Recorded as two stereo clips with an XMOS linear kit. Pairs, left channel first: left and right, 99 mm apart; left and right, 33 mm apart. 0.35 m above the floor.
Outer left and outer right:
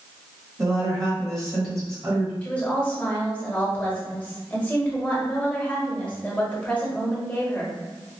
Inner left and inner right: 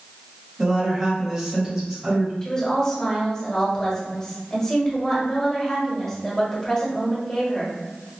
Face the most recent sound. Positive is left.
turn(degrees=15)  # may be behind; listen again after turning